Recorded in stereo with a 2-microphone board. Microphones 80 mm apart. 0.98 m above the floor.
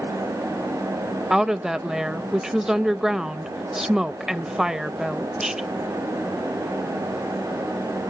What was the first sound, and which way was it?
A woman speaking, 5° right (ahead or behind).